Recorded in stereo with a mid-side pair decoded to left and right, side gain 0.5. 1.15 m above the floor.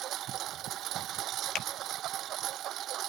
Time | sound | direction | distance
0.0 | a lawn mower | 65° right | ?
1.6 | a finger snap | 65° left | ?